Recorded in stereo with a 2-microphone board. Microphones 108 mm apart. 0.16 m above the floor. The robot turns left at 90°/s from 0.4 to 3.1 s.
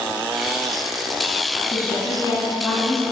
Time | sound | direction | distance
1.6 | a woman speaking | 120° left | 2.0 m